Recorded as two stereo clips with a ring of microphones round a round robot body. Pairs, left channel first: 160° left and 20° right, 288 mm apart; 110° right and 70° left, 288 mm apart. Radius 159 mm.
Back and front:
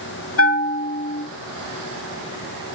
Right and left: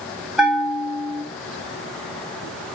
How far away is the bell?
About 1.0 m.